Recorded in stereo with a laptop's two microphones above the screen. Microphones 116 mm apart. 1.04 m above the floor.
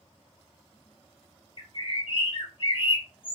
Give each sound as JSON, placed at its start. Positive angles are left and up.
{"t": 1.6, "sound": "a bird", "side_deg": 45, "distance_m": 0.5}